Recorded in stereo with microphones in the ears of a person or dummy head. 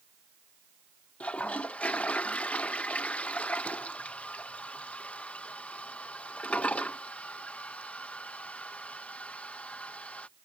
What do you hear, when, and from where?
1.2 s a toilet flushing: centre (ahead or behind)